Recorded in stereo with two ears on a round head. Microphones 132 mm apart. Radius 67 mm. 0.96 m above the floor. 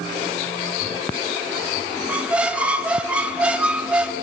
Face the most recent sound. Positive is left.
turn(degrees=-10)  # may be behind; listen again after turning